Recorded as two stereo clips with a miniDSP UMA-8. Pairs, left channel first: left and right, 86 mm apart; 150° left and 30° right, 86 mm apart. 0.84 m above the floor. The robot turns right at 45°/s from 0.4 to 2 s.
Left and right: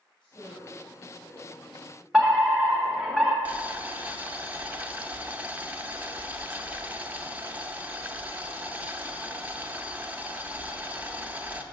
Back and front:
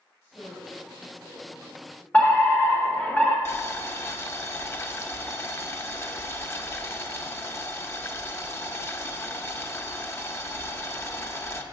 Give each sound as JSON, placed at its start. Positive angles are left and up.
{"t": 0.2, "sound": "a woman speaking", "azimuth_deg": 85, "distance_m": 3.0}
{"t": 2.1, "sound": "a fire alarm", "azimuth_deg": -170, "distance_m": 1.3}
{"t": 3.5, "sound": "boiling", "azimuth_deg": -155, "distance_m": 0.6}